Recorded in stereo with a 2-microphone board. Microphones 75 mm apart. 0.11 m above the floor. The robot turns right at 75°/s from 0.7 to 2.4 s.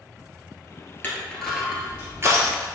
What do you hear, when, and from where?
1.0 s crushing: 30° left (ahead or behind), 1.3 m; by 2.7 s 45° right (ahead or behind), 1.3 m